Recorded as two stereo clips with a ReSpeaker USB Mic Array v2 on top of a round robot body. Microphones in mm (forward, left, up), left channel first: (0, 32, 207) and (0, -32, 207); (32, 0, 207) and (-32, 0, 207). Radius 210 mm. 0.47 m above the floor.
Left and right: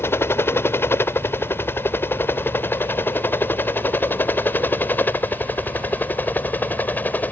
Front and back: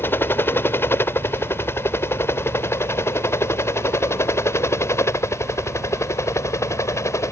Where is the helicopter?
50° left; by 7.3 s 30° left.